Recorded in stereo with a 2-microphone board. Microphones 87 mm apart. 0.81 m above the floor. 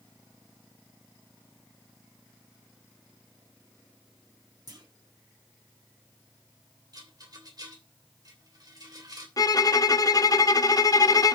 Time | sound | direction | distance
4.7 | a clunk | 50° right (ahead or behind) | 2 m
6.9 | a rattle | 50° right (ahead or behind) | 3 m
9.4 | a violin | 45° left (ahead or behind) | 0.6 m